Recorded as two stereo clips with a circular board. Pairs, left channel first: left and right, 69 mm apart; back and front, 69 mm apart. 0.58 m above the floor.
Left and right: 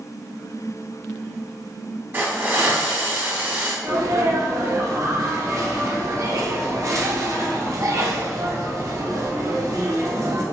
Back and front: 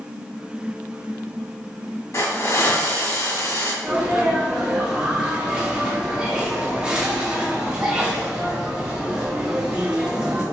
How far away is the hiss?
About 1.7 m.